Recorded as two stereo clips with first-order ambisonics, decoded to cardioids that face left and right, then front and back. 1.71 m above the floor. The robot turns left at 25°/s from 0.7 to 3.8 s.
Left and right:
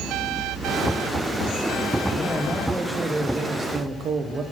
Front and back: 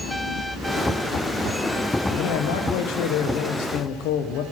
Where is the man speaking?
15° left, 0.6 m; by 4.4 s 25° right, 0.6 m.